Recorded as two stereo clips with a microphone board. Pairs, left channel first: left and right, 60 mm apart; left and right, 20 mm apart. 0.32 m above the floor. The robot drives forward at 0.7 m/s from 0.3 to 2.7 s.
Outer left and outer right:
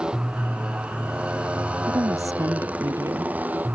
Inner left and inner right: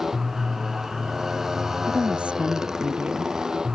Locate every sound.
0.0 s a motorcycle: 15° right (ahead or behind); by 3.8 s 30° right (ahead or behind)
1.9 s a woman speaking: 70° right (ahead or behind); by 3.3 s 65° right (ahead or behind)